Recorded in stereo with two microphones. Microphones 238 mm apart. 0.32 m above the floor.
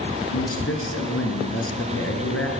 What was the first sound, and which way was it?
A man speaking, 65° left (ahead or behind).